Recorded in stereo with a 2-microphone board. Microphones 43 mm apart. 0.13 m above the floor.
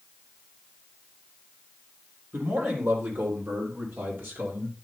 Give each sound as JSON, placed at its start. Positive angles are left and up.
{"t": 2.3, "sound": "a man speaking", "side_deg": -65, "distance_m": 5.5}